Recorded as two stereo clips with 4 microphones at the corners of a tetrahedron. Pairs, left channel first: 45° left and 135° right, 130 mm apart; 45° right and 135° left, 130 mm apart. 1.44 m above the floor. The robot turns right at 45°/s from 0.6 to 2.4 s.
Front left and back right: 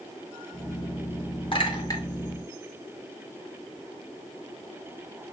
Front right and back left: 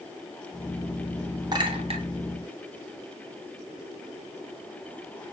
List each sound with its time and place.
1.5 s a clink: 80° left, 0.7 m; by 2.0 s 105° left, 0.7 m